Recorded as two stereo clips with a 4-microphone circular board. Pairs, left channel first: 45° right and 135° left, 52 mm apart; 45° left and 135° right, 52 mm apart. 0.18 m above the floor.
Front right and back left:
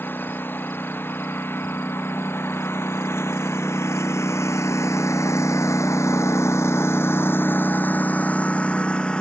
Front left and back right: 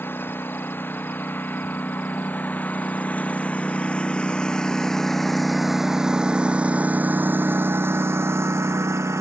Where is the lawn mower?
Straight ahead; by 9.2 s 115° right.